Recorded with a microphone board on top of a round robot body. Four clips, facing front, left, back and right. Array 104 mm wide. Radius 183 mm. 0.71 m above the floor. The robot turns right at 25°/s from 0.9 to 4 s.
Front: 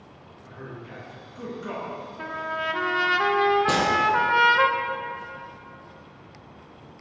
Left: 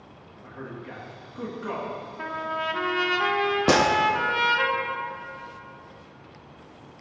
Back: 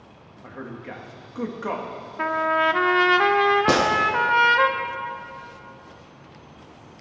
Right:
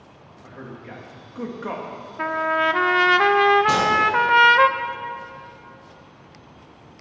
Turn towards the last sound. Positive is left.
turn(degrees=130)